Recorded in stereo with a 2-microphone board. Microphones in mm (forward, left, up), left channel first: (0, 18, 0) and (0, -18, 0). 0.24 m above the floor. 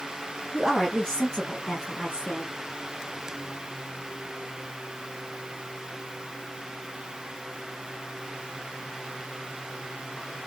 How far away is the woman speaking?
About 1.3 m.